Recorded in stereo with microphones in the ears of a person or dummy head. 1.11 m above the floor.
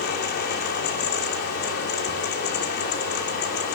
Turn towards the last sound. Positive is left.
turn(degrees=50)  # may be behind; listen again after turning